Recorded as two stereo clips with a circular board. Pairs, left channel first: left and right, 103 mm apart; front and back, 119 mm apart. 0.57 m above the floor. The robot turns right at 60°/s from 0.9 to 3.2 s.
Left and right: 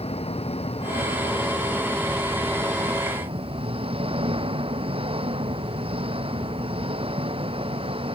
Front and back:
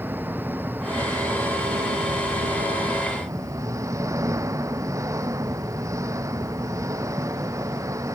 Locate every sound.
0.0 s an engine running: 105° left; by 8.1 s 115° right